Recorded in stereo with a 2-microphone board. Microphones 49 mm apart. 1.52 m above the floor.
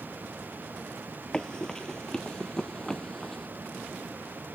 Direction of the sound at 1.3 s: 15° left (ahead or behind).